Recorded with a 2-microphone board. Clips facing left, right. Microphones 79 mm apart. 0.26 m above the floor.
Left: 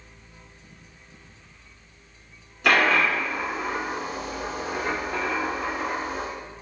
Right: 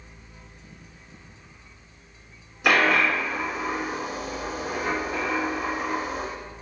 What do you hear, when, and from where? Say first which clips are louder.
2.6 s a dropped coin: even; 10° right (ahead or behind), 1.6 m